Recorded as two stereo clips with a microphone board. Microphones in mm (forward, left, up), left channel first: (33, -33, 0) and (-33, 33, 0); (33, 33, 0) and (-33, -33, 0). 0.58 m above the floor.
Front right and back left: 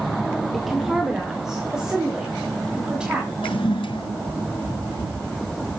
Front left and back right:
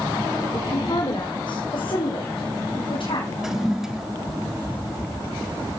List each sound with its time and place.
0.5 s a woman speaking: 45° left, 2.0 m; by 3.3 s 55° left, 5.5 m
3.4 s a toilet flushing: 50° right, 1.4 m